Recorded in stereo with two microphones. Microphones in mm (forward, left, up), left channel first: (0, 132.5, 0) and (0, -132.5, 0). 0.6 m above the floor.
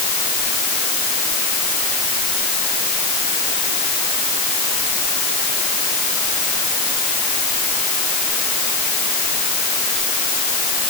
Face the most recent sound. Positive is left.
No sound to turn to.